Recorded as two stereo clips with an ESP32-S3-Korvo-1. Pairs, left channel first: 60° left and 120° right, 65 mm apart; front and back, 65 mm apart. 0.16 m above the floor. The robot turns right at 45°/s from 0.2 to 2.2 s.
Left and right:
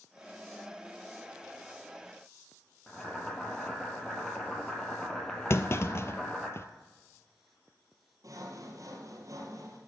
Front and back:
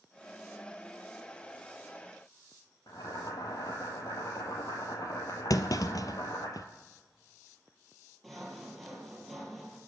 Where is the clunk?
15° left, 0.7 m.